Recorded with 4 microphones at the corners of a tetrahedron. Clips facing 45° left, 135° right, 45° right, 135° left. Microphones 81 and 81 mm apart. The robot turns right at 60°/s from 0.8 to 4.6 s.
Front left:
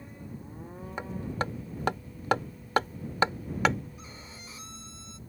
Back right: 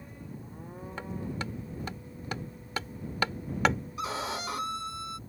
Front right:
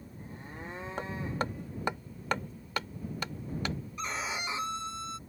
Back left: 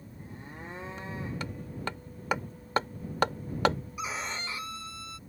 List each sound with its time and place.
1.0 s hammering: 25° right; by 3.8 s 140° left
4.0 s a violin: 145° right; by 5.2 s 110° right